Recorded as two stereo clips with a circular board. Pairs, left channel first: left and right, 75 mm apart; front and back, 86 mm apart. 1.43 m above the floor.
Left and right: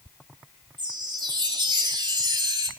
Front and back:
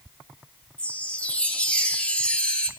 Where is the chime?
75° right, 3.5 m.